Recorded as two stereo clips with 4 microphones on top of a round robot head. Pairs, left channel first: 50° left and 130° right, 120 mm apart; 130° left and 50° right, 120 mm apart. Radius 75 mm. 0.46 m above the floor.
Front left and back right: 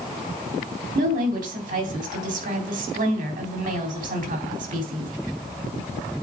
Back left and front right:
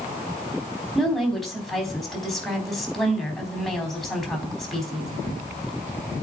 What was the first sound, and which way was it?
A woman speaking, 140° right.